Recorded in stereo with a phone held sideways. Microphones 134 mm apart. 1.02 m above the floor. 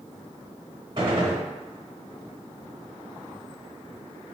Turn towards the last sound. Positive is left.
turn(degrees=-40)  # may be behind; listen again after turning